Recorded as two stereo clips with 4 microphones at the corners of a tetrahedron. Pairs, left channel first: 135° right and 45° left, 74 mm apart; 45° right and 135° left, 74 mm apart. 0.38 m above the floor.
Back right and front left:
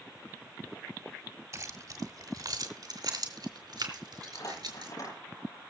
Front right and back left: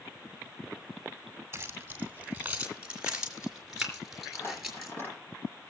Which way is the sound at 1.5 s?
85° left.